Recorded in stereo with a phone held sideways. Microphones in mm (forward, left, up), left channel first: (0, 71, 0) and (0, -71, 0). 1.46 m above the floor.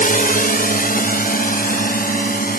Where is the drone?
75° left (ahead or behind); by 2.6 s 85° left.